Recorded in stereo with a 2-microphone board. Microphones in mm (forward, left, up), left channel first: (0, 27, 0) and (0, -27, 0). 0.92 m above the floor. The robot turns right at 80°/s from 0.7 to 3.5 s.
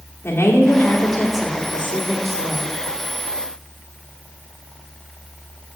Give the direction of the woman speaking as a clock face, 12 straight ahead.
8 o'clock.